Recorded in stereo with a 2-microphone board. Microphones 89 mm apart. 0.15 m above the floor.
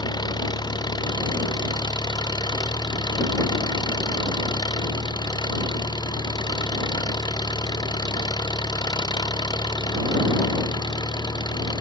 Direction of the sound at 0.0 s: 55° left (ahead or behind).